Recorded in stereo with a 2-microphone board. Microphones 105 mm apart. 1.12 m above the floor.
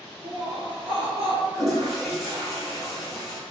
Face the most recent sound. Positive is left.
turn(degrees=-5)  # may be behind; listen again after turning